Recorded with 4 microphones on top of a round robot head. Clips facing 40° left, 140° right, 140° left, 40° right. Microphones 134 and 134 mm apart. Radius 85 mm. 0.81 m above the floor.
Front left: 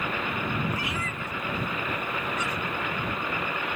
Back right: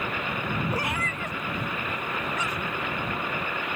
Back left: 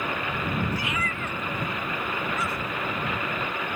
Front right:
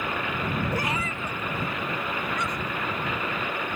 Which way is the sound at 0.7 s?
75° right.